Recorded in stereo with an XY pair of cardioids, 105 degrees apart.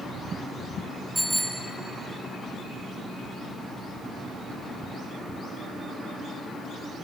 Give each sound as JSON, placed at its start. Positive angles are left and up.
{"t": 1.1, "sound": "a bicycle bell", "azimuth_deg": -10, "distance_m": 5.0}